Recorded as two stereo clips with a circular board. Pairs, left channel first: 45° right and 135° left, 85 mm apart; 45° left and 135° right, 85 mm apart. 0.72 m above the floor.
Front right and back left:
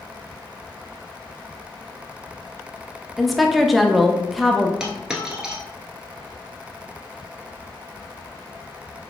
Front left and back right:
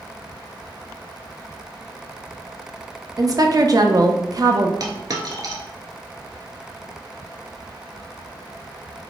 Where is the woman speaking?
135° right, 0.6 m.